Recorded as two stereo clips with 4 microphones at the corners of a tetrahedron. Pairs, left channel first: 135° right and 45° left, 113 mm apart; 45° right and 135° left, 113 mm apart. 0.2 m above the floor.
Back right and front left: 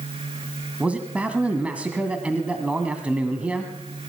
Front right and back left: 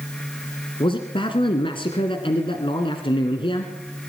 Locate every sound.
0.8 s a man speaking: 30° right, 1.8 m